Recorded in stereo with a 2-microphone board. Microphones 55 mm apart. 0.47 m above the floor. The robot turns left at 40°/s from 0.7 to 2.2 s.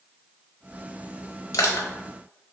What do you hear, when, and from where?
1.5 s crushing: 75° left (ahead or behind), 1.0 m; by 1.9 s 80° left, 1.0 m